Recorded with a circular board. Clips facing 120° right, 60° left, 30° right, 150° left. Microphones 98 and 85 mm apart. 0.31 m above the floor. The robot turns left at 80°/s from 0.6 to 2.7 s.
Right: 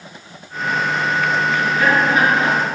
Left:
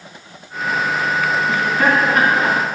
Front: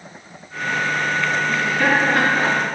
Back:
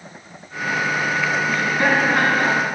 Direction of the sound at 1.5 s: 120° left.